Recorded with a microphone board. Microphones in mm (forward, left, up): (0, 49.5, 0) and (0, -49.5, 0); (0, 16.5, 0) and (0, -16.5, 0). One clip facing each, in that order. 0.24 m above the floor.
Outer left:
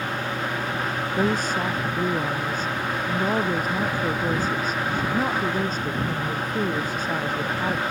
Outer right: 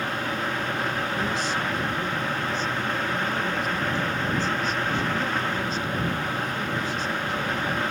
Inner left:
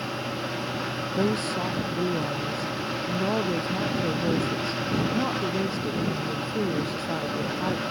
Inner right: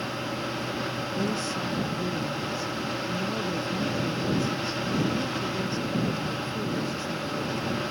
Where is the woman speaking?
45° left (ahead or behind).